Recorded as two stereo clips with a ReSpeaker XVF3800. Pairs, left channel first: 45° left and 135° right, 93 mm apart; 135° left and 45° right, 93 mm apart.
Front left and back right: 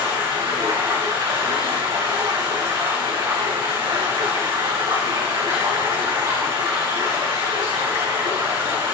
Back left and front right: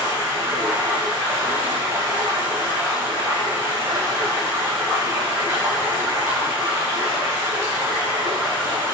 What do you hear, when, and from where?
0.0 s running water: 105° right, 5 m